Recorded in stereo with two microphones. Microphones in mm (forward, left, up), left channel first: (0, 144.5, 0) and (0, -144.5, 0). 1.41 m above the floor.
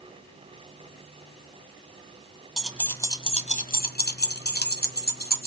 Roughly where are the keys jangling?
Centre.